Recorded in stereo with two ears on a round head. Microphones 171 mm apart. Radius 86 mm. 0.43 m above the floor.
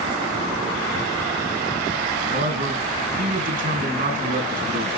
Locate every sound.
2.3 s a man speaking: 50° right (ahead or behind), 4.5 m